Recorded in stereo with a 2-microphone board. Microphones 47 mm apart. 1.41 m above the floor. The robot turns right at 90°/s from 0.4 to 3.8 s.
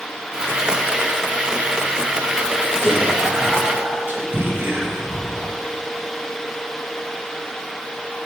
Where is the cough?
I don't hear a cough.